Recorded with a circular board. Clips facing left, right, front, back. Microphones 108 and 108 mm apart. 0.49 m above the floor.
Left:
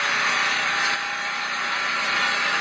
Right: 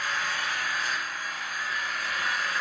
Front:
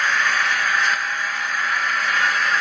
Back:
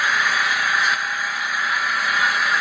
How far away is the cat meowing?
I don't hear a cat meowing.